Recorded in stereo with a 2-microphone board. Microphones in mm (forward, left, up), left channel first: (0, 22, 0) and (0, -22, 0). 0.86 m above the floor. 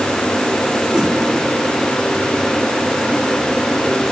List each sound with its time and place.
0.9 s a whoosh: 5° right (ahead or behind), 1.7 m